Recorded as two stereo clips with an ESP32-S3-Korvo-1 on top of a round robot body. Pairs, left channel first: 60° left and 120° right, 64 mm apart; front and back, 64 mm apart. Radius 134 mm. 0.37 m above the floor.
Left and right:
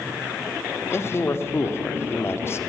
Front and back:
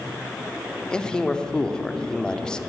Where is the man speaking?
70° left, 1.8 m.